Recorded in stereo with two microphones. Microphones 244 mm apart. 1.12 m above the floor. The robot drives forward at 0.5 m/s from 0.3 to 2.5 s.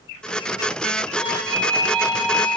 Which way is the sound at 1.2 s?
25° left (ahead or behind).